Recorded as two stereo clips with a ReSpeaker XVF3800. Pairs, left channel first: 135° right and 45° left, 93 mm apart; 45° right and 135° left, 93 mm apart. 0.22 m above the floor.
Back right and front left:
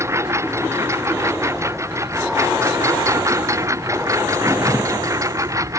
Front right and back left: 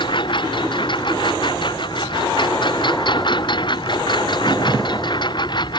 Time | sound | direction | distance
0.0 | a lawn mower | 15° right | ?